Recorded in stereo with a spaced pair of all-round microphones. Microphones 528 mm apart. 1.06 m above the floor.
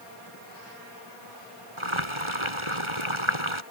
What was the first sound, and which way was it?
Boiling, 65° right (ahead or behind).